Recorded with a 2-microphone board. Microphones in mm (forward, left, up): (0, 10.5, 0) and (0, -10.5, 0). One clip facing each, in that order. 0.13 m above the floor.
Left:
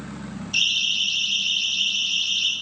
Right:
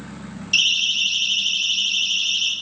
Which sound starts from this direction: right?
A siren, at 0.5 s.